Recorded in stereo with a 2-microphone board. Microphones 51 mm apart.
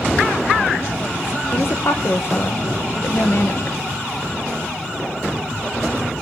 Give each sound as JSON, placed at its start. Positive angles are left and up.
{"t": 1.5, "sound": "a woman speaking", "side_deg": 55, "distance_m": 1.8}